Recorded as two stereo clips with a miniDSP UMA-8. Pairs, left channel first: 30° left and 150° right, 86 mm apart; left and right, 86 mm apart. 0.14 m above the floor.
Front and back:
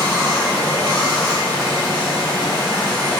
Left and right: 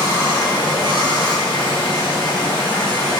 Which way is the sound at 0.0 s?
100° left.